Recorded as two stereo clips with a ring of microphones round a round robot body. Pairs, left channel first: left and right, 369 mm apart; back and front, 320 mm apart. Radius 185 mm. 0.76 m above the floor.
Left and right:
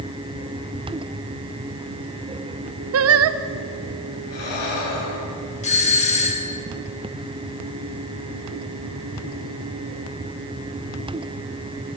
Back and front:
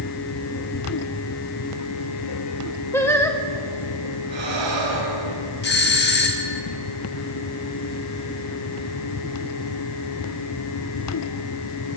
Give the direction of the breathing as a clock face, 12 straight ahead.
11 o'clock.